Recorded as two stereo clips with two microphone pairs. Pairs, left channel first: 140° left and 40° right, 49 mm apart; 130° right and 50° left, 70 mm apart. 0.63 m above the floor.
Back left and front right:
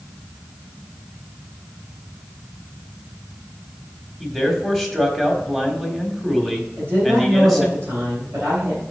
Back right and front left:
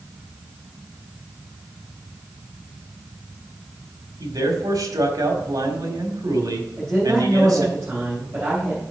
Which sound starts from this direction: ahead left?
A man speaking, at 4.2 s.